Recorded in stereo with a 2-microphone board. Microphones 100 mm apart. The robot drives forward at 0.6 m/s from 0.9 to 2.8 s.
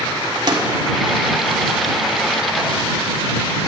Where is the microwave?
45° right (ahead or behind), 1.7 m.